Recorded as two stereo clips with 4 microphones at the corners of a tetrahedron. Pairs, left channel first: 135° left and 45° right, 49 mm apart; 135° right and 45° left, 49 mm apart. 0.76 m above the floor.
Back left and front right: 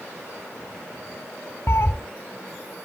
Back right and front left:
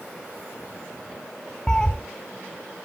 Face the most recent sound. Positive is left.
turn(degrees=150)